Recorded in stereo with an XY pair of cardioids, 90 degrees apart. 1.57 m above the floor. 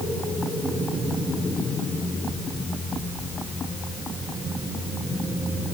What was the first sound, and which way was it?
Only background noise.